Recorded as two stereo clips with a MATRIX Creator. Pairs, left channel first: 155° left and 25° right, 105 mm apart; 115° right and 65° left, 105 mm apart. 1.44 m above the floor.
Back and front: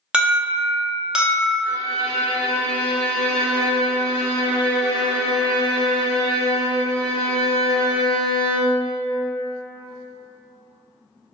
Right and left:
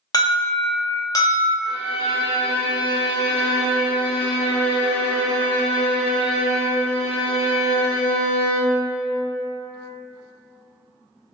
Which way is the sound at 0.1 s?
100° right.